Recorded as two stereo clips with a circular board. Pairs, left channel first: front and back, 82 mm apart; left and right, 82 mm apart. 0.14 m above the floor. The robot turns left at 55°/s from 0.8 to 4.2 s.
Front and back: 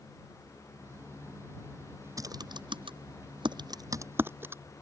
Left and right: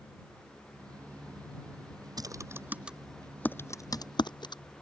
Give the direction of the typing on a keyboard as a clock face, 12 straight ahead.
4 o'clock.